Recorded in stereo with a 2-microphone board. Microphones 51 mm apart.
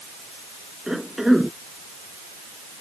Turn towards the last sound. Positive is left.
turn(degrees=-10)  # may be behind; listen again after turning